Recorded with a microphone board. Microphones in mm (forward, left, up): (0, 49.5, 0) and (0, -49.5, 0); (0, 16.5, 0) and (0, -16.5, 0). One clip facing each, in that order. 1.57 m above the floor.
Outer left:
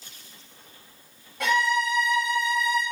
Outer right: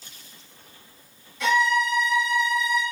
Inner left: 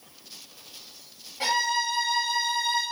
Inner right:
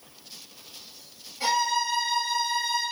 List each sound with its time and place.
1.4 s a violin: 50° left (ahead or behind), 0.9 m